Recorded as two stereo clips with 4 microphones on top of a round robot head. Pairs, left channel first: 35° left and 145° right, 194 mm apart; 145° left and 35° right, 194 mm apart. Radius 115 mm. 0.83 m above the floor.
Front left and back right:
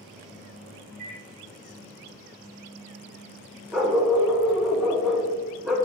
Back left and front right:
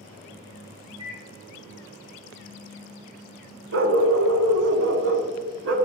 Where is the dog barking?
60° right, 0.6 m.